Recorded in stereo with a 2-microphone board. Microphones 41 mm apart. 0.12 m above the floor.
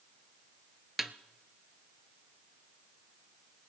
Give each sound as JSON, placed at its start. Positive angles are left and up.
{"t": 1.0, "sound": "a snare drum", "side_deg": -5, "distance_m": 0.6}